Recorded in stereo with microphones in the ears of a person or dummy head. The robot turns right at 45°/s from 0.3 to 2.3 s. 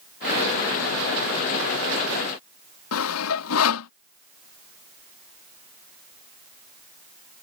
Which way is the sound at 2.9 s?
85° left.